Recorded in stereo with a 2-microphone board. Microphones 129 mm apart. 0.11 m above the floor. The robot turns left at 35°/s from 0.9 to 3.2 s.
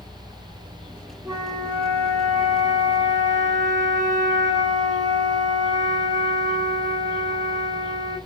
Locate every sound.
1.2 s a flute: 25° right, 1.2 m; by 8.2 s 95° right, 1.2 m